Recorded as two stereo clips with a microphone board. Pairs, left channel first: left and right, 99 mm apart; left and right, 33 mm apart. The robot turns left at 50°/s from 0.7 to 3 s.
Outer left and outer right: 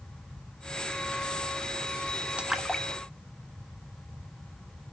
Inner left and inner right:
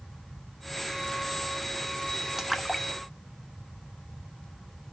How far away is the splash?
About 0.9 m.